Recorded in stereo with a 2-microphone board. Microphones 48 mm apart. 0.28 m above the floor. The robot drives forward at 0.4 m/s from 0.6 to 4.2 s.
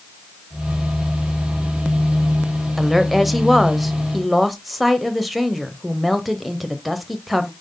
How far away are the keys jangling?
No keys jangling in this recording.